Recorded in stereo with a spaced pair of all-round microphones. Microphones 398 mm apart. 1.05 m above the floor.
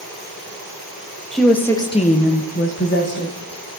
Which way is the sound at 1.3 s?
Centre (ahead or behind).